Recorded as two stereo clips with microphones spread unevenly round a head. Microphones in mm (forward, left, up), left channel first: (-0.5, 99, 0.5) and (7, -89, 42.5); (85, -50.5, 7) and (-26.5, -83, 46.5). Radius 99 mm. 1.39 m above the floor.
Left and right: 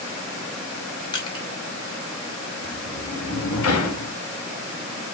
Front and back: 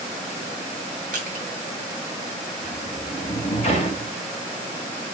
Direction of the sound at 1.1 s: 165° left.